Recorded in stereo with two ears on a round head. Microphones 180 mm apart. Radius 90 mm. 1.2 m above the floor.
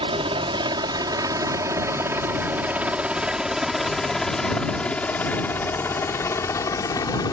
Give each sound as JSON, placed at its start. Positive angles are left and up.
{"t": 0.0, "sound": "a helicopter", "side_deg": -25}